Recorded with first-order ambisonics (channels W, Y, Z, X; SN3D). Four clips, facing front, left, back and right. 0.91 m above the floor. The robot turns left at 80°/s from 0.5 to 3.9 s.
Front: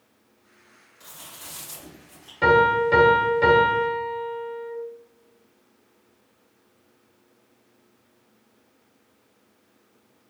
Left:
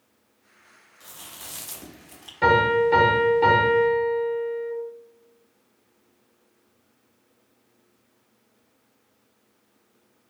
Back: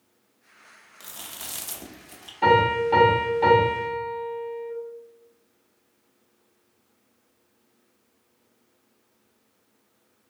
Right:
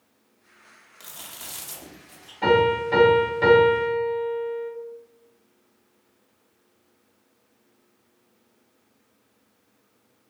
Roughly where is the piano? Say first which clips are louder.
Left 1 dB, front 2 dB; ahead left.